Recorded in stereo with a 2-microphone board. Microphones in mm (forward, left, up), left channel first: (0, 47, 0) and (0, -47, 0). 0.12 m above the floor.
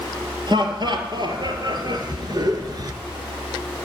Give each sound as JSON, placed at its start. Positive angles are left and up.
{"t": 0.5, "sound": "laughter", "side_deg": -50, "distance_m": 2.5}